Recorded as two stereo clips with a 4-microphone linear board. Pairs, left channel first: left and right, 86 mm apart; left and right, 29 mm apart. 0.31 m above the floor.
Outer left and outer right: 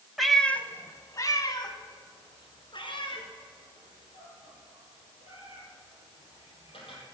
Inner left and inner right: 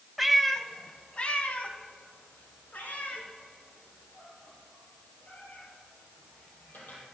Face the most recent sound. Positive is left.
turn(degrees=80)